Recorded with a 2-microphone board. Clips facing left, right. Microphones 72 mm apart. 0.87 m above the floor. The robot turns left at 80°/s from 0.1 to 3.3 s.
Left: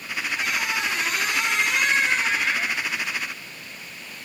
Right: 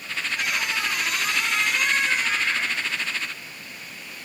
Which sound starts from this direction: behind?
A squeak, at 0.3 s.